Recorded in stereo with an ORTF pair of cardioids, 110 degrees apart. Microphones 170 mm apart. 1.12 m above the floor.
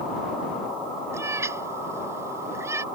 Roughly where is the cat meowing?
Ahead.